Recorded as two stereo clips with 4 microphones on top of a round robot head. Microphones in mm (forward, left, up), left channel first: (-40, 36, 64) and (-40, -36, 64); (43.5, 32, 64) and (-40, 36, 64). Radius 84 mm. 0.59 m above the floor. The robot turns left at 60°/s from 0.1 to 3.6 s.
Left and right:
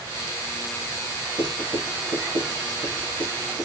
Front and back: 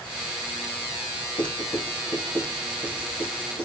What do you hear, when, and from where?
1.4 s writing: 45° right, 1.7 m; by 3.6 s straight behind, 1.7 m